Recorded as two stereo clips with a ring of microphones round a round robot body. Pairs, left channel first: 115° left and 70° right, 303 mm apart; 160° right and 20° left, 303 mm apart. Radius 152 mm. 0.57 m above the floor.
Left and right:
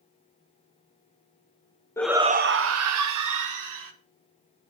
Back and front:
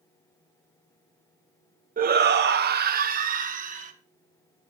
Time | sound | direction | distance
2.0 | a shout | 45° left | 0.6 m